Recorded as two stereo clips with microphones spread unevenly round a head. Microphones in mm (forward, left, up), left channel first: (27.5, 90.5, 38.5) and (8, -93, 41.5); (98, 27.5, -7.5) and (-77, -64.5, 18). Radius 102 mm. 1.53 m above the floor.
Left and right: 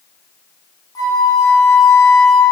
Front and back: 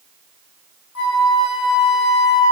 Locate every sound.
0.9 s a flute: 10° left, 3 m